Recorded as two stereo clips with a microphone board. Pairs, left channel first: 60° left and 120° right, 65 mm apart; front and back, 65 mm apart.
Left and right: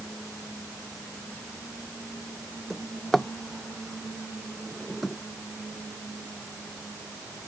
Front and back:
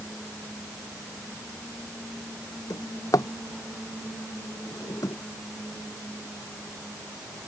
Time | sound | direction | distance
2.7 | a drawer | 30° right | ?